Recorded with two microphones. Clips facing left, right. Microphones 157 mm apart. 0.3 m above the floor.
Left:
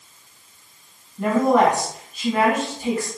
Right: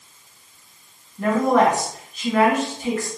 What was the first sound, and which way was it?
A woman speaking, 5° left (ahead or behind).